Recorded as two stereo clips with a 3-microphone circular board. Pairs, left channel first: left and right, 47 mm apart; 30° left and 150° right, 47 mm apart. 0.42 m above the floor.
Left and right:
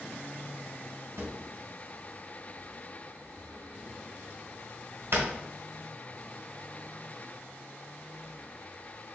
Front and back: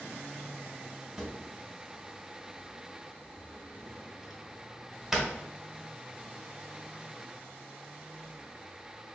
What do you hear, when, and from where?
1.2 s a drawer: 70° right, 1.2 m